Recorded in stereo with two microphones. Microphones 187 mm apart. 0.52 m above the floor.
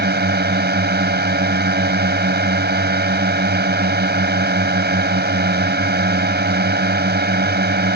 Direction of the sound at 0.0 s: 65° right (ahead or behind).